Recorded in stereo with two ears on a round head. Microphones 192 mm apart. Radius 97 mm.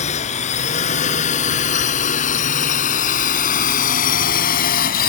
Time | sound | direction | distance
0.0 | a drone | 30° left (ahead or behind) | ?